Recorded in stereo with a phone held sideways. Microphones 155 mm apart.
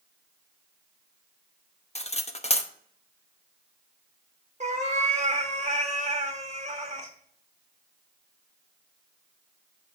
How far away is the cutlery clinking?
About 0.7 m.